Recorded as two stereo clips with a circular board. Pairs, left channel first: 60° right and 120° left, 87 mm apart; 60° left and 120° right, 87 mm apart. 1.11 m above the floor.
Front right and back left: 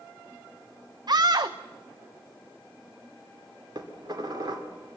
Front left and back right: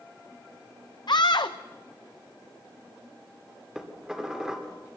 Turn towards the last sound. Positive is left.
turn(degrees=160)